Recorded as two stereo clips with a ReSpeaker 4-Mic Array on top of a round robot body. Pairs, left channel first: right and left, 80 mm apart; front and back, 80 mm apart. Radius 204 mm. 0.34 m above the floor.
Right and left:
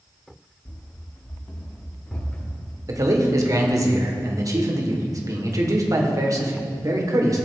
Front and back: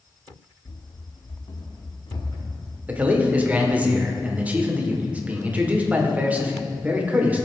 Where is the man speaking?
115° left, 2 m.